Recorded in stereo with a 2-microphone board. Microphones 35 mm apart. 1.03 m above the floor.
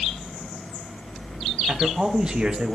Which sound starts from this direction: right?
A man speaking, at 1.7 s.